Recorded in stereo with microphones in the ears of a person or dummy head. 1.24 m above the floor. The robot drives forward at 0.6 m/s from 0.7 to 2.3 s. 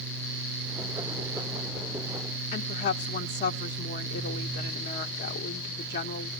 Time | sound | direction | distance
2.5 | a woman speaking | 40° left (ahead or behind) | 0.7 m